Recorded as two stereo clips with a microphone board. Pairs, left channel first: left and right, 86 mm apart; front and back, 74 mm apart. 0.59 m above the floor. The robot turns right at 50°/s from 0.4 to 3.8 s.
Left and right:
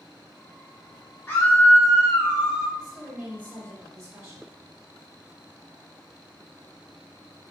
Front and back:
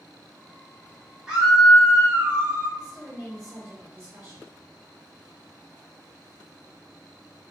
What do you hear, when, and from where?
1.3 s a scream: 115° left, 1.0 m; by 2.7 s 175° right, 1.0 m
2.8 s a woman speaking: 175° left, 1.3 m; by 4.5 s 135° right, 1.3 m